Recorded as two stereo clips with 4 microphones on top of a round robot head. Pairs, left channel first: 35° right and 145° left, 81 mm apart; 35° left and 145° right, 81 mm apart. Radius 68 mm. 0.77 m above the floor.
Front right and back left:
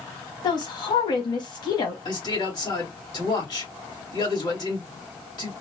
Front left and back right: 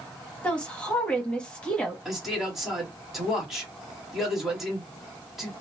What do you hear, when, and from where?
0.4 s a woman speaking: 40° right, 1.3 m
2.0 s a man speaking: 55° right, 2 m